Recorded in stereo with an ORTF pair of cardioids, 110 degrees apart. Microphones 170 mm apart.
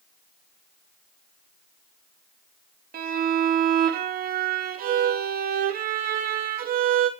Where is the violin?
60° right, 2.5 m.